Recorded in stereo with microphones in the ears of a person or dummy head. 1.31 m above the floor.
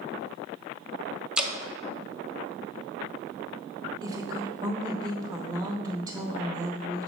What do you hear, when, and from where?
1.4 s dripping: 5° right (ahead or behind), 0.7 m
4.0 s a woman speaking: 15° right (ahead or behind), 1.0 m